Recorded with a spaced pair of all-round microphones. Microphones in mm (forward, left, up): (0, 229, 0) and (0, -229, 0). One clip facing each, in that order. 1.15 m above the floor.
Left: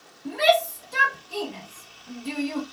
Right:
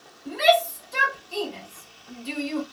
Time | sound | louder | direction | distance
0.2 | a shout | even | 80° left | 2 m